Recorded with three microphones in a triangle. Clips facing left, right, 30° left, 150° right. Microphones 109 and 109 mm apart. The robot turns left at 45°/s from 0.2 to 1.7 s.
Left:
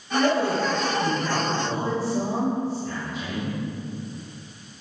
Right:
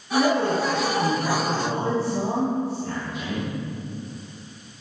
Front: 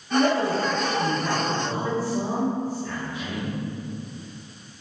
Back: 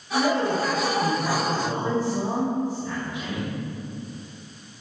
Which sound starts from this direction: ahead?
A man speaking, at 0.1 s.